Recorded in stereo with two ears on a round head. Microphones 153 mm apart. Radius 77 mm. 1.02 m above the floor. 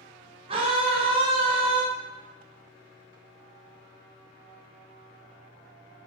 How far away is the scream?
About 0.5 m.